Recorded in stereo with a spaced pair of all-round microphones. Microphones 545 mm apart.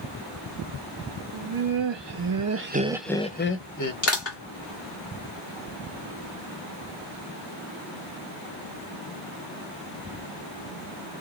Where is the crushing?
25° left (ahead or behind), 1.3 m.